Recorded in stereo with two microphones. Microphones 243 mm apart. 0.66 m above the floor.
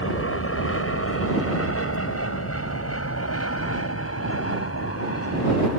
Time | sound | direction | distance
0.0 | an aircraft | 65° left (ahead or behind) | ?